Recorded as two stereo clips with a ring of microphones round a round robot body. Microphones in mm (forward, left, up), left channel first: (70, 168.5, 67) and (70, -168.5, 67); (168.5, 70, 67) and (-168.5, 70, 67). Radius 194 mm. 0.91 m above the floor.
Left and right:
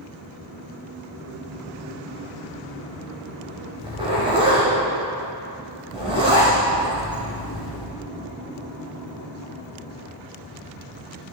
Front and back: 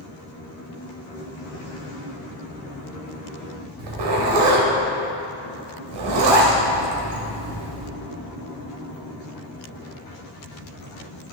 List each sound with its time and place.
3.8 s a zipper: 165° right, 1.2 m